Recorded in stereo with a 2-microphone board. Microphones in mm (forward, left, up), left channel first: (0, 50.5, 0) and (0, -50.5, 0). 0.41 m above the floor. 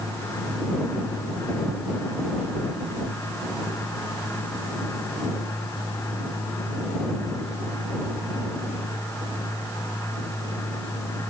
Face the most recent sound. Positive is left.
No sound to turn to.